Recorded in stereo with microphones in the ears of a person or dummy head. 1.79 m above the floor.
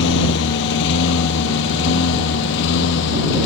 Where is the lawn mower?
70° left (ahead or behind); by 3.5 s 65° left (ahead or behind).